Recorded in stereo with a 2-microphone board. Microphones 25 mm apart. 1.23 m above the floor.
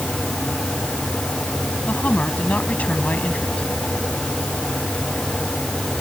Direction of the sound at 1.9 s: 90° left.